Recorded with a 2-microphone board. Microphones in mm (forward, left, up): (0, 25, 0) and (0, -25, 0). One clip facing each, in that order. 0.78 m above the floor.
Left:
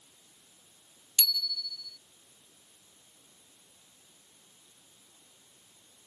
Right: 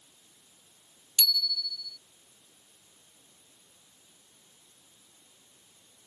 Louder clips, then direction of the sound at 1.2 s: Right 3 dB; 15° left (ahead or behind).